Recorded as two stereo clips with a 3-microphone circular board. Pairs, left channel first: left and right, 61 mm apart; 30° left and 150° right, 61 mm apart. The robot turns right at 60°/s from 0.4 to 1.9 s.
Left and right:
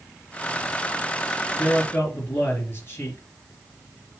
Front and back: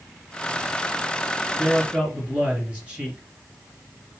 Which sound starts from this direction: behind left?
A man speaking, at 1.6 s.